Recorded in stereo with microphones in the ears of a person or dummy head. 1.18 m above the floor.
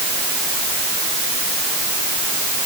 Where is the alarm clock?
No alarm clock in this recording.